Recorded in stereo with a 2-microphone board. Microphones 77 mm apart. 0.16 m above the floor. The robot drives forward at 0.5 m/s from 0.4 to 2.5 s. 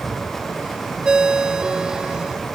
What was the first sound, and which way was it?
A ringtone, 10° right (ahead or behind).